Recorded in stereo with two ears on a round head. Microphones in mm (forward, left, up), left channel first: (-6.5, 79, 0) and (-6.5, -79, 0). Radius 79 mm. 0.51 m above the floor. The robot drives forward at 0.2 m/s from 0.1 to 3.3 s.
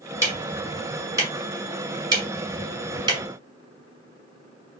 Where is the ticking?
20° right (ahead or behind), 1.3 m; by 3.2 s 25° right (ahead or behind), 0.9 m.